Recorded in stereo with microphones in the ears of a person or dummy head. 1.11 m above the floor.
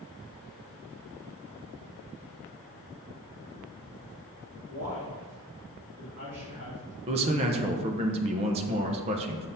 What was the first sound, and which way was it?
A man speaking, 55° right (ahead or behind).